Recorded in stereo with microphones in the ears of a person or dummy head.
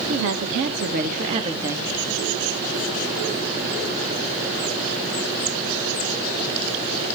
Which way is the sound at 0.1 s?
70° right (ahead or behind).